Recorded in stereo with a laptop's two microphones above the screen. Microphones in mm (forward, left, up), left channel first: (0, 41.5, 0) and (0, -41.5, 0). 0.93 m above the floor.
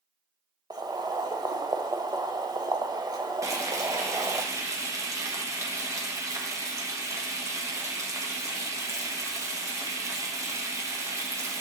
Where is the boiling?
50° right (ahead or behind), 0.9 m.